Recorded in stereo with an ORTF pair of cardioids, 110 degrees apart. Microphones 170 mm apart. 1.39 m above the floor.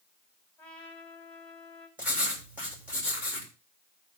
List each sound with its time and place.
0.6 s a trumpet: 5° left, 5.5 m
2.0 s writing: 10° right, 7.5 m